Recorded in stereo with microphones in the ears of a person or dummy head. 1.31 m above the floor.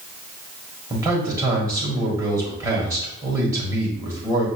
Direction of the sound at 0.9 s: 15° right (ahead or behind).